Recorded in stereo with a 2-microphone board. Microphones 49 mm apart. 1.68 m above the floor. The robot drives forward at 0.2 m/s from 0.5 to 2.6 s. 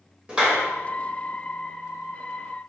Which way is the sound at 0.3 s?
20° right (ahead or behind).